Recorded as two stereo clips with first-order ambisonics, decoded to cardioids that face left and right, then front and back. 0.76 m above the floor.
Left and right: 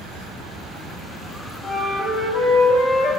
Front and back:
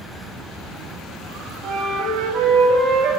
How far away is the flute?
About 2.5 m.